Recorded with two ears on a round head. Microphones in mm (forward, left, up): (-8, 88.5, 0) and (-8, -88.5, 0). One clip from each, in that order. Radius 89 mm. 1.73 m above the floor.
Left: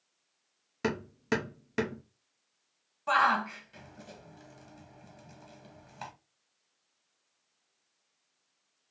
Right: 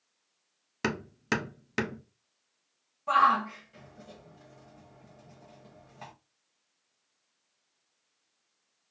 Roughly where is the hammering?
Right.